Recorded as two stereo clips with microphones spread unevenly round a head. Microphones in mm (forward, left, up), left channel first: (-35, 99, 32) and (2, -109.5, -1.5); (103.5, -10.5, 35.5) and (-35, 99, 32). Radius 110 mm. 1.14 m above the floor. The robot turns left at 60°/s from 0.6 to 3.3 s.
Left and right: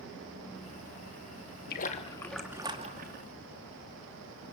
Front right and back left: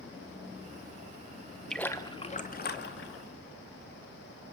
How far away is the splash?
About 2.5 m.